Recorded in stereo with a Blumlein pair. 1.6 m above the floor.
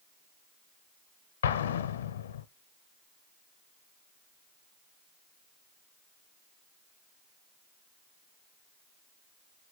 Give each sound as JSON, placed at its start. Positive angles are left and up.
{"t": 1.4, "sound": "an explosion", "azimuth_deg": 60, "distance_m": 0.6}